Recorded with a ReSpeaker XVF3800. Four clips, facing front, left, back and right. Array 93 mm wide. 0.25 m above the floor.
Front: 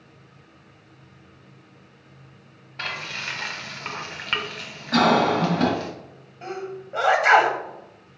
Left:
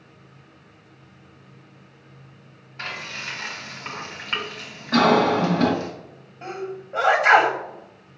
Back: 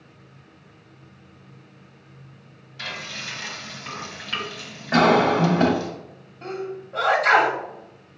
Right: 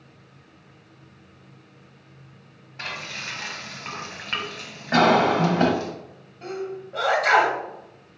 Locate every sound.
2.8 s frying: 5° right, 0.9 m
4.9 s a cough: 130° right, 1.2 m
6.4 s a sneeze: 50° left, 1.0 m